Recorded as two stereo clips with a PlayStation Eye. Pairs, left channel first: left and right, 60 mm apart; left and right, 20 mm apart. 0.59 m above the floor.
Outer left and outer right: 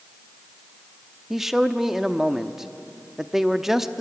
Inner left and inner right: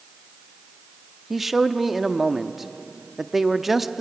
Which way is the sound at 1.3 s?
5° right (ahead or behind).